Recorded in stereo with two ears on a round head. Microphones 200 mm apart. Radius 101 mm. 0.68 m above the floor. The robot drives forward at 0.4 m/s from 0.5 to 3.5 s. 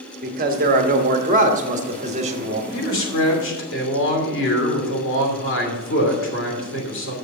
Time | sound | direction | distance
0.2 | a man speaking | 40° right (ahead or behind) | 1.2 m
2.7 | a man speaking | 65° left (ahead or behind) | 2.5 m